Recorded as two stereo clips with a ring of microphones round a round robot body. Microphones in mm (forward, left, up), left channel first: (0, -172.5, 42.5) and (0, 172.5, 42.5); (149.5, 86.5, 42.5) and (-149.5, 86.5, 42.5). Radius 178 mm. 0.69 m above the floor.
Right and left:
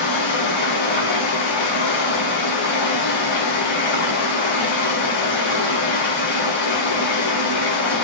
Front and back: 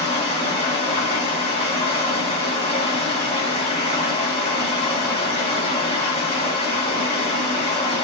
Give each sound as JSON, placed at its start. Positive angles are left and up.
{"t": 0.0, "sound": "running water", "azimuth_deg": -80, "distance_m": 3.5}